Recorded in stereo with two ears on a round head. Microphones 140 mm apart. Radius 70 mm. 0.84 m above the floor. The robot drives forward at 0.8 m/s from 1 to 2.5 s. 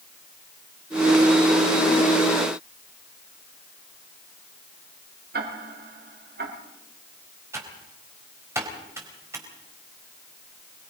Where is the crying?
I don't hear crying.